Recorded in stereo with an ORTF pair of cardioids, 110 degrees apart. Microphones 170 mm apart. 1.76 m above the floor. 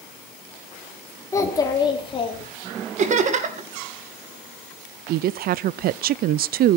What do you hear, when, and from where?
1.3 s a child speaking: 20° left, 3.5 m; by 2.5 s 40° left, 3.5 m
3.0 s laughter: 45° right, 2.5 m
5.1 s a woman speaking: 65° right, 0.6 m